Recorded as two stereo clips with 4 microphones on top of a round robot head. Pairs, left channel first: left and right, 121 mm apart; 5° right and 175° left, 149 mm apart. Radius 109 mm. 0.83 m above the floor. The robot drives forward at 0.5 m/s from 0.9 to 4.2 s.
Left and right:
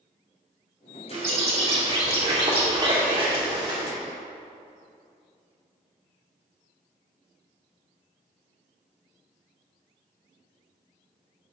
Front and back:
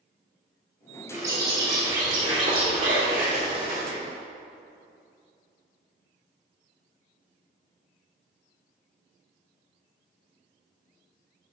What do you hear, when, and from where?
1.1 s a bird: 110° right, 2 m; by 4.0 s 140° right, 3 m